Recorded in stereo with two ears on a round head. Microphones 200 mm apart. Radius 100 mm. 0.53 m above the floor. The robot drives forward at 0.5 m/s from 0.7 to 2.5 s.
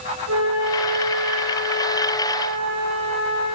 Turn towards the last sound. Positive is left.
turn(degrees=-80)